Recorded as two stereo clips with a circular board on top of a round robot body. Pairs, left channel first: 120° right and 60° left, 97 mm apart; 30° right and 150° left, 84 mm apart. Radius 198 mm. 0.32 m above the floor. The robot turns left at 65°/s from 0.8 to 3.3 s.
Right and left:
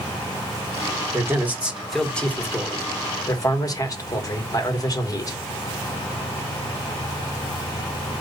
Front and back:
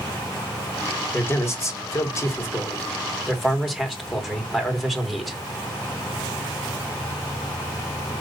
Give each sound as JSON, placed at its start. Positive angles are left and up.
{"t": 1.1, "sound": "a man speaking", "azimuth_deg": 20, "distance_m": 1.5}